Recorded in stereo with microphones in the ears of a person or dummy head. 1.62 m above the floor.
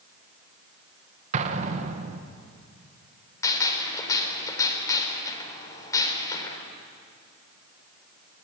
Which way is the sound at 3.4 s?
15° left (ahead or behind).